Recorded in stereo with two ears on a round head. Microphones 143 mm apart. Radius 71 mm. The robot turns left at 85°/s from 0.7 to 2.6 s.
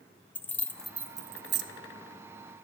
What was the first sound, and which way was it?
Keys jangling, 10° left (ahead or behind).